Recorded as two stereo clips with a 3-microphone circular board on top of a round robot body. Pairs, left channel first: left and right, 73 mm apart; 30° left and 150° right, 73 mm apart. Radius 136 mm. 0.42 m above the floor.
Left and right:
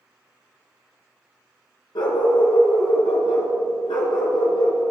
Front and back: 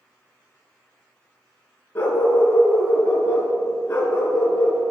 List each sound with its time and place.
1.9 s a dog barking: 95° left, 2.5 m